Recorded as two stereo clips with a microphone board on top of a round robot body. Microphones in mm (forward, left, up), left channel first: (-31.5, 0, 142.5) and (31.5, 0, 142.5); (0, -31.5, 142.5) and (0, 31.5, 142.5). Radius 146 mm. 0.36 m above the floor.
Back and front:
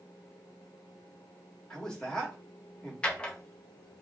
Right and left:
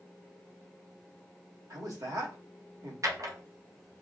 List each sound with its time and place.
1.7 s a man speaking: 100° left, 1.5 m
3.0 s a drawer: 110° left, 0.9 m